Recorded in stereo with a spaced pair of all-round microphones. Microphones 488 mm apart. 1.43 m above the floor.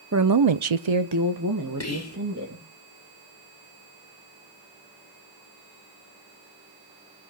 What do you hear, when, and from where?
0.1 s a woman speaking: 30° right (ahead or behind), 0.8 m
1.8 s whispering: 30° left (ahead or behind), 1.5 m